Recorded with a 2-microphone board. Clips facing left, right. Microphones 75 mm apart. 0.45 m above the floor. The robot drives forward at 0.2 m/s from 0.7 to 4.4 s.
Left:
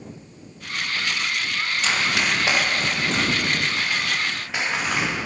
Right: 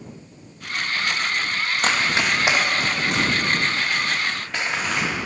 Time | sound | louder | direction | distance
1.8 | running footsteps | right 2 dB | 50° right (ahead or behind) | 0.9 m